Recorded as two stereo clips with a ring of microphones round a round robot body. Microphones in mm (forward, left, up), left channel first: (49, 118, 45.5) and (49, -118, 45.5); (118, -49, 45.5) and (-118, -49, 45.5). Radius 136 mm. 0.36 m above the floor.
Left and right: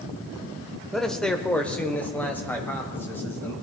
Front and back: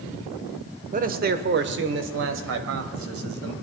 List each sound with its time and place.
0.9 s a man speaking: 175° left, 1.0 m; by 3.5 s 170° left, 2 m